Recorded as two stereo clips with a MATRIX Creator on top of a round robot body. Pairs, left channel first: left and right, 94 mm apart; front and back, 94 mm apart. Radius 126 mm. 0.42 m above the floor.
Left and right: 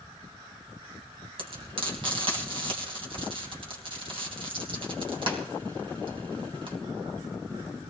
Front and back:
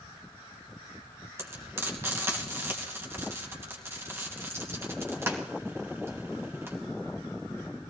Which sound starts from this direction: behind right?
Frying, at 1.4 s.